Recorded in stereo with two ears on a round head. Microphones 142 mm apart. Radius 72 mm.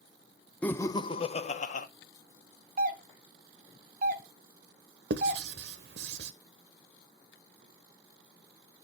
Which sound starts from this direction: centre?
Laughter, at 0.6 s.